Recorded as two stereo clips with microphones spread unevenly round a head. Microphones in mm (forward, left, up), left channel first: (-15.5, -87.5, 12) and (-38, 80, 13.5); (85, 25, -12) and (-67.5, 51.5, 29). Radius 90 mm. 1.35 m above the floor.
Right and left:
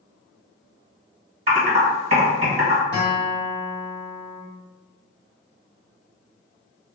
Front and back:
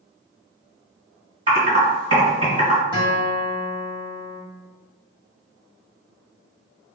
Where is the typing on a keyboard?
140° left, 1.7 m.